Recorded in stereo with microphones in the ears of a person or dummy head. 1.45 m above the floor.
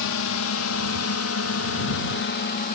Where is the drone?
75° left (ahead or behind); by 2.8 s 35° left (ahead or behind).